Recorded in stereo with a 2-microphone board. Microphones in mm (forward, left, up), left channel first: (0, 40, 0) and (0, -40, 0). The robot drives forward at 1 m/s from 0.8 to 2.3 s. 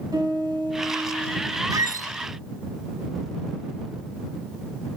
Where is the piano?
55° right (ahead or behind), 5.5 m; by 1.6 s 50° right (ahead or behind), 6 m.